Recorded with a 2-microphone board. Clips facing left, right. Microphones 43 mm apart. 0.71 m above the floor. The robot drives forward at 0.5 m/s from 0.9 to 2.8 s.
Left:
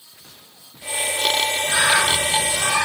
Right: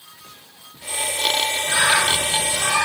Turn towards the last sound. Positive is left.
turn(degrees=-10)  # may be behind; listen again after turning